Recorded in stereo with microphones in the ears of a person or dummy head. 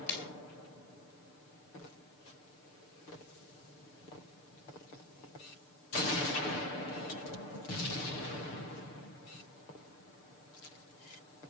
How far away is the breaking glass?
About 4 m.